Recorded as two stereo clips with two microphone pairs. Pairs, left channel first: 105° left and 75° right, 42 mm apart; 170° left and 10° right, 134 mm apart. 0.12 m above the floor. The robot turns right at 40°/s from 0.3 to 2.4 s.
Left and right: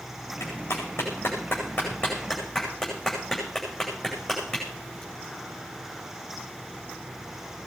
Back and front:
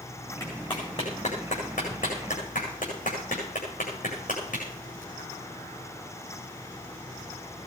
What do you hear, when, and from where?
0.4 s a clap: 105° left, 8.5 m; by 5.0 s 175° right, 8.5 m